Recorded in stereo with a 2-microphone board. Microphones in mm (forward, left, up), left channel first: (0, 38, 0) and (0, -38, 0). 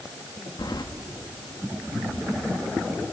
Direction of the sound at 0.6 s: 65° left (ahead or behind).